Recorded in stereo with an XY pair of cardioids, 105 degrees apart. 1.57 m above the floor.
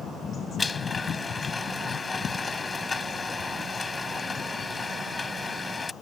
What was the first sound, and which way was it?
A blender, 25° left.